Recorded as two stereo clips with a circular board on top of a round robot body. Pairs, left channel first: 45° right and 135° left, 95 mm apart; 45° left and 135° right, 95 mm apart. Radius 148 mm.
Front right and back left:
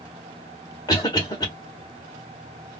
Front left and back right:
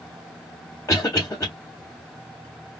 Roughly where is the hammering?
I don't hear hammering.